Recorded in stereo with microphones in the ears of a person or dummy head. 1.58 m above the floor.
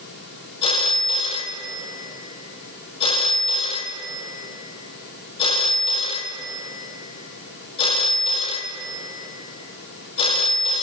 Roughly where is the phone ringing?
Left.